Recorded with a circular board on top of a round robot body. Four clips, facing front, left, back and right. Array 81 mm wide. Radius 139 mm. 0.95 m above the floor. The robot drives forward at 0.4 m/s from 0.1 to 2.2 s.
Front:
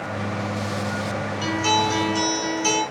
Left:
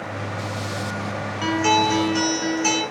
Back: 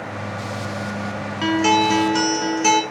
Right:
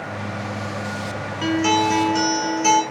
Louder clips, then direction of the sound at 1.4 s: Right 1 dB, back 5 dB; 170° right.